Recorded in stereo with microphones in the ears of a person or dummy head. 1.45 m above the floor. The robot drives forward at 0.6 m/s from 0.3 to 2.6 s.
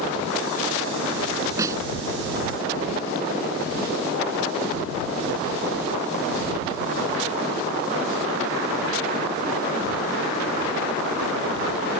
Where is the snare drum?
15° right (ahead or behind).